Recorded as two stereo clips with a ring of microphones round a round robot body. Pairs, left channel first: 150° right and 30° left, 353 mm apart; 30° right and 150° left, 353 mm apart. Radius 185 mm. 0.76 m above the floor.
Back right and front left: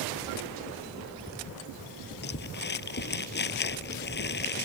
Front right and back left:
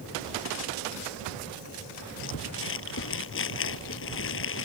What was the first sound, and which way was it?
Crumpling, 85° right.